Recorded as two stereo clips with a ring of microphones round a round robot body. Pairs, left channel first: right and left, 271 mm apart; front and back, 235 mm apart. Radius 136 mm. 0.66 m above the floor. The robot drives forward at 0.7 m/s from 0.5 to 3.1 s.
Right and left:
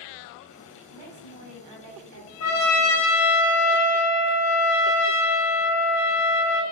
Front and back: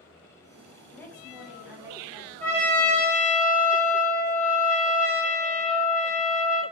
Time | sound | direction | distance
0.9 | a woman speaking | 80° left | 1.6 m
2.4 | a trumpet | 115° right | 1.1 m